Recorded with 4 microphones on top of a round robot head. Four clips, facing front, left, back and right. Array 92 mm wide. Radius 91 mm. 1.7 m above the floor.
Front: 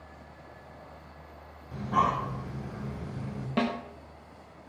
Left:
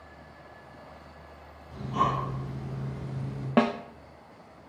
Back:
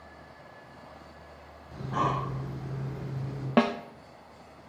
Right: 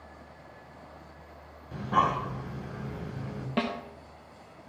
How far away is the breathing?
About 8.5 m.